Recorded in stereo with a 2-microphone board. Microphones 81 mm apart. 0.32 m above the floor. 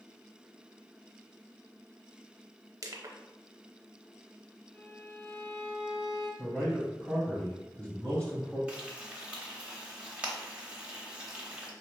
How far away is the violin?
About 1.2 m.